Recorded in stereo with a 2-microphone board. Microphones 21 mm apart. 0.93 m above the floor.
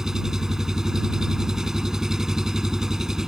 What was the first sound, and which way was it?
An engine running, 20° right (ahead or behind).